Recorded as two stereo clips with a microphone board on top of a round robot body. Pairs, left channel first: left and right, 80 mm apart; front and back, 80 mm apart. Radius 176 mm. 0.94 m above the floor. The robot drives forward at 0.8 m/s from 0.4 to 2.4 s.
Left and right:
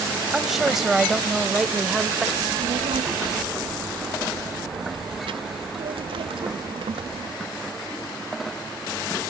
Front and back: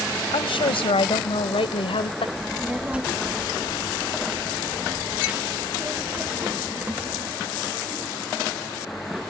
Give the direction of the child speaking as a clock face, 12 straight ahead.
3 o'clock.